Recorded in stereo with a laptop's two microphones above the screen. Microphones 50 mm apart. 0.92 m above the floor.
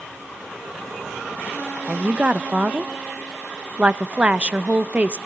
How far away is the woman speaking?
About 0.7 m.